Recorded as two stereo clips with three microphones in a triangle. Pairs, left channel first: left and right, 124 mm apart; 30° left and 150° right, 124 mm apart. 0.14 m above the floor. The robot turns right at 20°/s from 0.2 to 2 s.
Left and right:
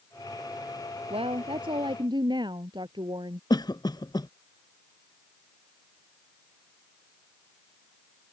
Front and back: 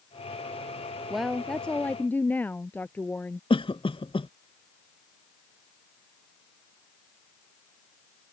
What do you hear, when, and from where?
1.1 s a woman speaking: 60° right; by 3.4 s 45° right
3.5 s a cough: 50° left